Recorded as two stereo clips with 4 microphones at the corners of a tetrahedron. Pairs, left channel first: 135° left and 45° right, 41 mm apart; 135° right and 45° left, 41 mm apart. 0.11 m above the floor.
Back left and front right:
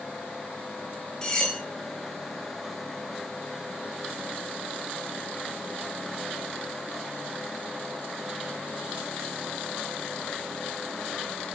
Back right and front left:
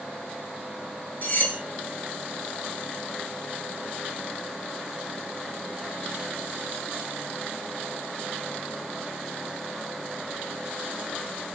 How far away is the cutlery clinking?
About 1.1 m.